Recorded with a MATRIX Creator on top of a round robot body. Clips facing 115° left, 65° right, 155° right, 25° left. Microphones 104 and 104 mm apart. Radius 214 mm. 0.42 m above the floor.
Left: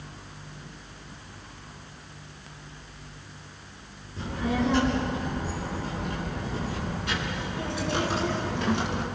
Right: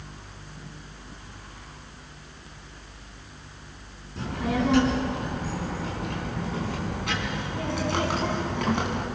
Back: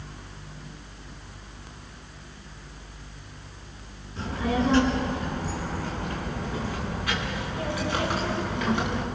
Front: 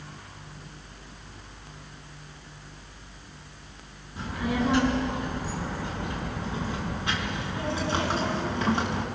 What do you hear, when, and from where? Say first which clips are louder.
4.2 s a child speaking: right 1 dB, back 2 dB; 55° right, 6.5 m; by 9.1 s 30° right, 5 m